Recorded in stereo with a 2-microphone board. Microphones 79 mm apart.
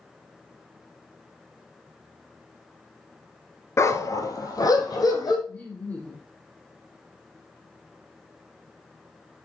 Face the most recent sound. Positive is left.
turn(degrees=20)  # may be behind; listen again after turning